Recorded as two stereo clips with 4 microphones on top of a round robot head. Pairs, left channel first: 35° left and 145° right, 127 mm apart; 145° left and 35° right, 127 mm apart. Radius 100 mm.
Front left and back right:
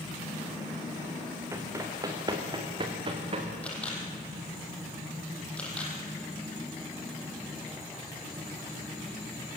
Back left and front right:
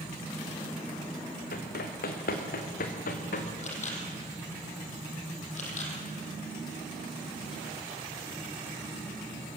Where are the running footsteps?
145° left, 3 m; by 3.5 s 170° left, 3 m.